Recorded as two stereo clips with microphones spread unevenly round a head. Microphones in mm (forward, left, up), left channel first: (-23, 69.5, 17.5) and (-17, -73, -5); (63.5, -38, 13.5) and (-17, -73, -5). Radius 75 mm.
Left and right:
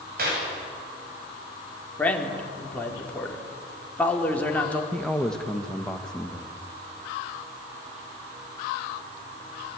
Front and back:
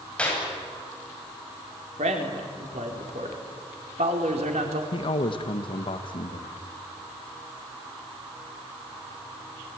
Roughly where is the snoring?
I don't hear snoring.